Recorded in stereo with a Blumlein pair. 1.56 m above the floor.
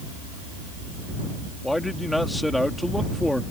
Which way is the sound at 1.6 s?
5° left.